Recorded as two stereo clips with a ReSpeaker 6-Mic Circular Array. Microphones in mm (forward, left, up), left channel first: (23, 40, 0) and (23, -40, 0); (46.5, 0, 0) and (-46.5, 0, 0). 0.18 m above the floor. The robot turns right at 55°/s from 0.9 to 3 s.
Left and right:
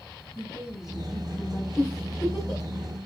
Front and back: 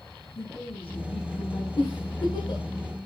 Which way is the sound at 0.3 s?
5° right.